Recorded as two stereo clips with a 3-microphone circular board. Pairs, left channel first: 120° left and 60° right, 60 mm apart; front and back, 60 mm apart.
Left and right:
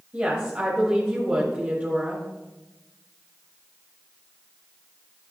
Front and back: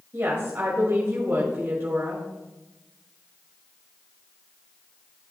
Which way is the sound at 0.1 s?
130° right.